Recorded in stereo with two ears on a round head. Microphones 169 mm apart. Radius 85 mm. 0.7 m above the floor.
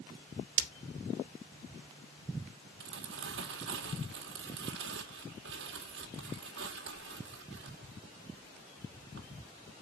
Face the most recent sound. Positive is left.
turn(degrees=-70)  # may be behind; listen again after turning